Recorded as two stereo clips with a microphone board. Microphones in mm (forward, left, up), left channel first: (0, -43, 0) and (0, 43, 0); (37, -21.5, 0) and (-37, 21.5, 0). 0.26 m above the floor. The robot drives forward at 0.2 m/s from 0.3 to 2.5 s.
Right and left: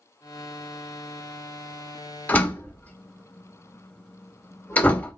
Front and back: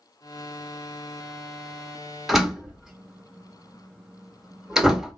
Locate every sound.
2.3 s a door slam: 130° right, 0.7 m; by 5.1 s 135° right, 0.7 m